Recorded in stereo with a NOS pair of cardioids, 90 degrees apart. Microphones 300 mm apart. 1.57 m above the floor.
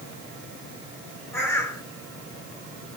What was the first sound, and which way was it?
A bird, 10° left.